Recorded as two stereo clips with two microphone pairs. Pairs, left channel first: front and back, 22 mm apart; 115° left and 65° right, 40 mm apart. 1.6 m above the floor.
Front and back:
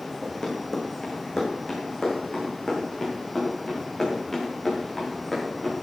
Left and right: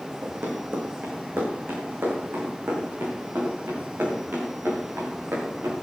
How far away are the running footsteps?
About 5 m.